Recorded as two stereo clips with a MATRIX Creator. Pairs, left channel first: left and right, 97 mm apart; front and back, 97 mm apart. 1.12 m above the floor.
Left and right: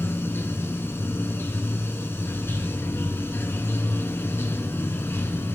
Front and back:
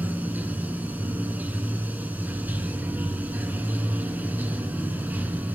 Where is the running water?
130° left, 1.1 m.